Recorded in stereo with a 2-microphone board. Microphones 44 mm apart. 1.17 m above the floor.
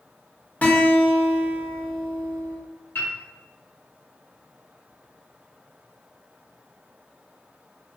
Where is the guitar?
40° left (ahead or behind), 0.8 m.